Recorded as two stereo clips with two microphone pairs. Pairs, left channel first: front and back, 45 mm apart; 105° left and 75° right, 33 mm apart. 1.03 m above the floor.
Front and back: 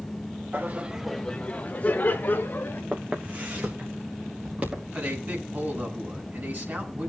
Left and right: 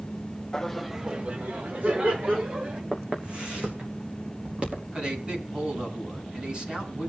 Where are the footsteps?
130° right, 3 m.